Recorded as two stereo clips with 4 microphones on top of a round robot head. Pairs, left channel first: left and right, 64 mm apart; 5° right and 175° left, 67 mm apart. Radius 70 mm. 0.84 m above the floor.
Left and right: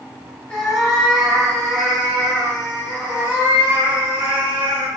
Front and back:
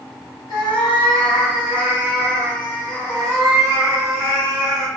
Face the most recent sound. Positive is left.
turn(degrees=-90)